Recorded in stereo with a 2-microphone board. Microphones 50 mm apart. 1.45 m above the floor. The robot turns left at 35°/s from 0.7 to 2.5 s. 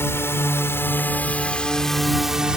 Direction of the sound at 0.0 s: 60° left (ahead or behind).